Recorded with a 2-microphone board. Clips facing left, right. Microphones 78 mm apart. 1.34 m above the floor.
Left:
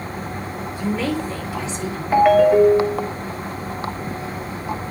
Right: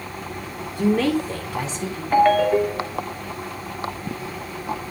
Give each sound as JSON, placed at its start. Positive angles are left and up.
{"t": 0.8, "sound": "a woman speaking", "side_deg": -55, "distance_m": 2.0}
{"t": 2.1, "sound": "a ringtone", "side_deg": 5, "distance_m": 1.0}